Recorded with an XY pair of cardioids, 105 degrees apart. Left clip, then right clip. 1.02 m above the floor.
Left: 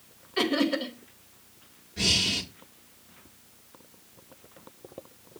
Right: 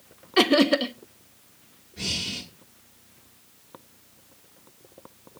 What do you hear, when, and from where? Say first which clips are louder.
0.4 s laughter: right 7 dB; 60° right, 0.9 m
2.0 s breathing: left 5 dB; 35° left, 1.2 m